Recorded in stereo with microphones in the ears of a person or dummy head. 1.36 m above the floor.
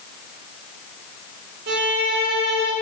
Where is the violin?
60° right (ahead or behind), 1.5 m.